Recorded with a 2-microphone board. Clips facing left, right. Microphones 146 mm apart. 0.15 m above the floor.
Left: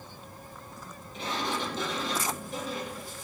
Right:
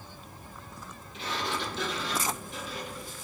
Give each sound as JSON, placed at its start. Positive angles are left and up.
{"t": 1.1, "sound": "a sliding door", "side_deg": 40, "distance_m": 3.5}